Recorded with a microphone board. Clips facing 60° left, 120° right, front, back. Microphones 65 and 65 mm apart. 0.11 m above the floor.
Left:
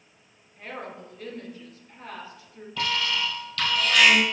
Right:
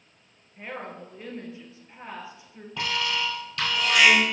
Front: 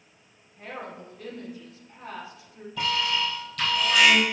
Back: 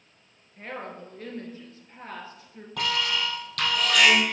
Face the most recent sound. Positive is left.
turn(degrees=170)